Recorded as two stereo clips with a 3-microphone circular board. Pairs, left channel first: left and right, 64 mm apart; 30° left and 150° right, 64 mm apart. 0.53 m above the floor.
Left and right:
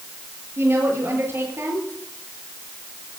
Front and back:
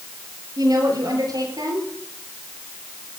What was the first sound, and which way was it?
A woman speaking, 140° right.